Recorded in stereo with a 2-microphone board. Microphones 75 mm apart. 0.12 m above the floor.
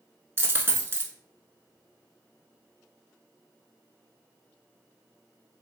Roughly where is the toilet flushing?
I don't hear a toilet flushing.